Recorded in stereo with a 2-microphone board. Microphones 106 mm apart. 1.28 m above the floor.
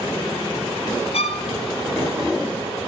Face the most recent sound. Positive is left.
turn(degrees=65)  # may be behind; listen again after turning